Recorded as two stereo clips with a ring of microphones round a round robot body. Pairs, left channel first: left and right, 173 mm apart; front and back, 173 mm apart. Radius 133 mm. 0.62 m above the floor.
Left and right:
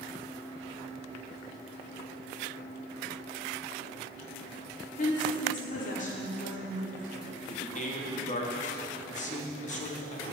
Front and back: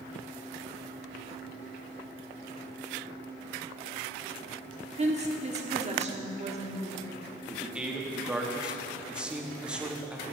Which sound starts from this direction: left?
A man speaking, at 7.5 s.